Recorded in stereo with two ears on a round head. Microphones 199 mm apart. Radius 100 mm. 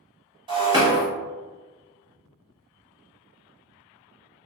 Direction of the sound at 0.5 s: 20° right (ahead or behind).